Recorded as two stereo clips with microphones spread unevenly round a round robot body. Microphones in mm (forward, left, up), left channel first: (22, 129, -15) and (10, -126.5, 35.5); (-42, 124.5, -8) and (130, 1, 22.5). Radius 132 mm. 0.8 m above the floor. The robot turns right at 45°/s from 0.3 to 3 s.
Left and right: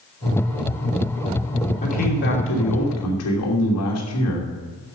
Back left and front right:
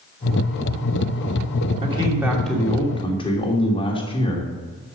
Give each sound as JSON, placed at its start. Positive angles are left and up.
{"t": 1.8, "sound": "a man speaking", "azimuth_deg": 30, "distance_m": 2.5}